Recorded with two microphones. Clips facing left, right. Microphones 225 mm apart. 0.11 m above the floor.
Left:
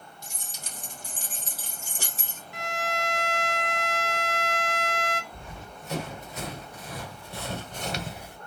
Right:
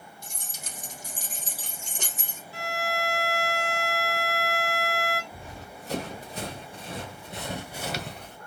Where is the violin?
35° right (ahead or behind), 0.5 m.